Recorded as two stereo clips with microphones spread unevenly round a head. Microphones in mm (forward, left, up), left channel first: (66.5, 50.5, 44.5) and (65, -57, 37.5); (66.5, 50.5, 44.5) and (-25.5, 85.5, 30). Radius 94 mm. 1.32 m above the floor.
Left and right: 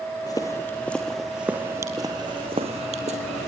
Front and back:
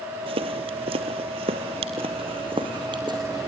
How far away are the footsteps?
About 1.9 m.